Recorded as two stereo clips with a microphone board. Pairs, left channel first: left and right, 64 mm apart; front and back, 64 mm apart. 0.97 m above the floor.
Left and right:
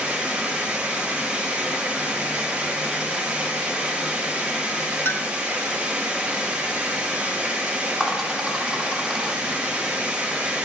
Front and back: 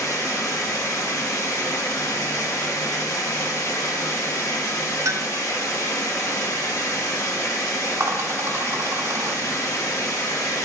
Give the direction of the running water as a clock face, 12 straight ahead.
1 o'clock.